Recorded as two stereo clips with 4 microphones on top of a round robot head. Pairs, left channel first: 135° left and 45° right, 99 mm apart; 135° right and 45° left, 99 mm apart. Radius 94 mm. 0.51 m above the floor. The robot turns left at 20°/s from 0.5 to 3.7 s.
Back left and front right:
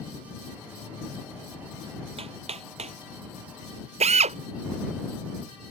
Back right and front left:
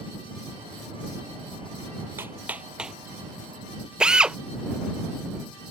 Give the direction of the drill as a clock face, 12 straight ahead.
1 o'clock.